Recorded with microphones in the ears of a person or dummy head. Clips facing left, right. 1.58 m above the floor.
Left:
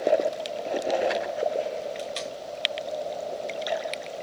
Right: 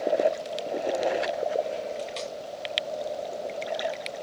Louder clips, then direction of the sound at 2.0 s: Even; 20° left (ahead or behind).